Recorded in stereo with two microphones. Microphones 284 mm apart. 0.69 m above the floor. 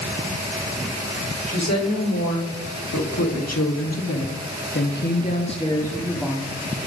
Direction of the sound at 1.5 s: 65° left (ahead or behind).